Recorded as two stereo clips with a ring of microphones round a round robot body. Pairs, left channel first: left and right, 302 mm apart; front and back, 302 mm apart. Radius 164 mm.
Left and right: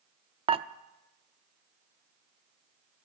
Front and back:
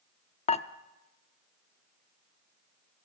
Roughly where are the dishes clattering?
Ahead right.